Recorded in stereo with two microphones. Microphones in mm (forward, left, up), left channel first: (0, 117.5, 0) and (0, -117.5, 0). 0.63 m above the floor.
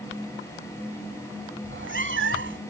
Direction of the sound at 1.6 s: 60° right (ahead or behind).